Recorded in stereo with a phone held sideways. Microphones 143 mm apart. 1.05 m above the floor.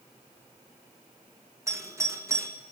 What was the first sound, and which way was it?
A doorbell, 20° right (ahead or behind).